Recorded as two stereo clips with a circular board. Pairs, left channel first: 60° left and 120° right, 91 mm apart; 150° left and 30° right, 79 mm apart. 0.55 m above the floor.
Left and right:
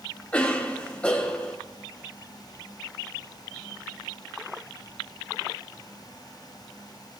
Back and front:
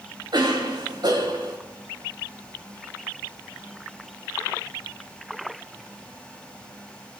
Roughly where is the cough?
Ahead.